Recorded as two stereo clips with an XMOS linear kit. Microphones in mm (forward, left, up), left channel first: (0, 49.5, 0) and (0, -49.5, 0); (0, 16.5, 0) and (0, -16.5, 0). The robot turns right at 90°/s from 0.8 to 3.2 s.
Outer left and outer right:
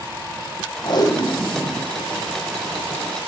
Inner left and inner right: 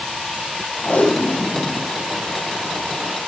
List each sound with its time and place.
0.8 s tape being pulled: 115° left, 0.7 m; by 1.9 s 150° right, 0.7 m